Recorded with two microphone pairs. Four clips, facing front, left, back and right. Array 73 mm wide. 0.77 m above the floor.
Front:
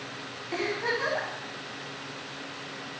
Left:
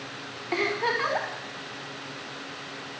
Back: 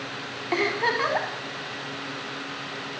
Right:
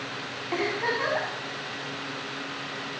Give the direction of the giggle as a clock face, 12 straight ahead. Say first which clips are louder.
Left 1 dB, back 5 dB; 6 o'clock.